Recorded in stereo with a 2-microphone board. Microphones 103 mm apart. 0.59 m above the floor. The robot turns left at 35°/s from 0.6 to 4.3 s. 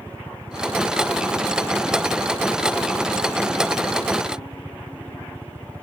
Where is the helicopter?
30° right; by 5.8 s 160° right.